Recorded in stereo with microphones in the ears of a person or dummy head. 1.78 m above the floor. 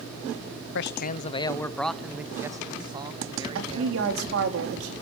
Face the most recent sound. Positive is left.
turn(degrees=-70)  # may be behind; listen again after turning